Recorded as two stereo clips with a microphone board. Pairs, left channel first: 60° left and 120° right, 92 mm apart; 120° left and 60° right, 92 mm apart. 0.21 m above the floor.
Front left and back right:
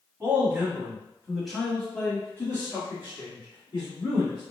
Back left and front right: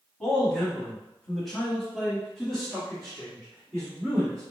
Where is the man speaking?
160° right, 1.5 m; by 4.4 s 25° left, 2 m.